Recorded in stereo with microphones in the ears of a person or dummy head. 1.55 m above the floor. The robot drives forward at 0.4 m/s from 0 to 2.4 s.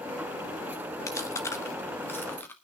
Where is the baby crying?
No baby crying in this recording.